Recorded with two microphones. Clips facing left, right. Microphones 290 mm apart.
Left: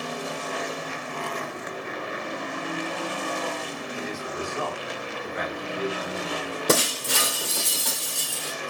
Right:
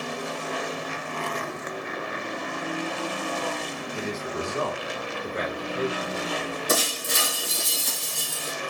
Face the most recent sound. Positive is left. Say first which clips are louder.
# left 6 dB
turn(degrees=75)  # may be behind; listen again after turning